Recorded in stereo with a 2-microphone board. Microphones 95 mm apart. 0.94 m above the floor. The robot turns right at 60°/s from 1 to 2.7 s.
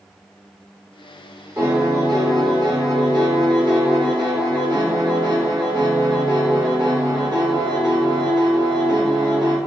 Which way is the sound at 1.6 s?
140° right.